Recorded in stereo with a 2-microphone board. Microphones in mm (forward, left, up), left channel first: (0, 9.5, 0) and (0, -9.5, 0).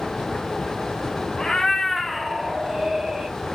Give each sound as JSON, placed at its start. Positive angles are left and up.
{"t": 1.4, "sound": "a cat meowing", "side_deg": 45, "distance_m": 0.9}